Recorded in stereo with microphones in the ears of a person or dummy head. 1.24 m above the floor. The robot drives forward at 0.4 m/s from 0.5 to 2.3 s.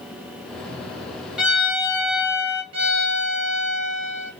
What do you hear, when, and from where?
1.4 s a violin: 5° right (ahead or behind), 0.8 m; by 2.6 s 10° right (ahead or behind), 0.5 m
2.7 s a violin: 90° right, 1.7 m